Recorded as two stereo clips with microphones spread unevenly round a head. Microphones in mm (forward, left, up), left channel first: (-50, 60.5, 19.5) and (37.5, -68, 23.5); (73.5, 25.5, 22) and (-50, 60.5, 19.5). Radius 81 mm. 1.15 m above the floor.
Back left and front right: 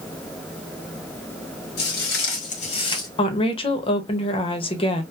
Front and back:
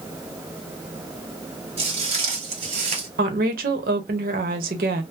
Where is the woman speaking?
Straight behind, 0.9 m.